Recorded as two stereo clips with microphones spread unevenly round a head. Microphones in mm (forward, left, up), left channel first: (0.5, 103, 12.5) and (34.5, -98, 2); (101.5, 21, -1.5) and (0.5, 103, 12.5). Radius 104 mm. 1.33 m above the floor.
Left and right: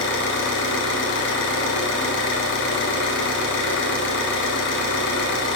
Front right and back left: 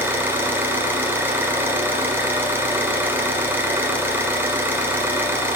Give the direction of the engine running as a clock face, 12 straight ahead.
10 o'clock.